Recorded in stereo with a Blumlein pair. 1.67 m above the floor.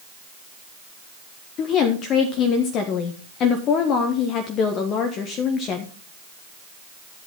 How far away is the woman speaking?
About 1.3 m.